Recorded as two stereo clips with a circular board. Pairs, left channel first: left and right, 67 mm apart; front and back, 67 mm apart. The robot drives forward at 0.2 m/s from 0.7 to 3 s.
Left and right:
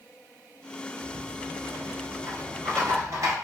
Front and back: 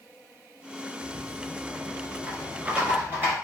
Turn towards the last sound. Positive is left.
turn(degrees=-125)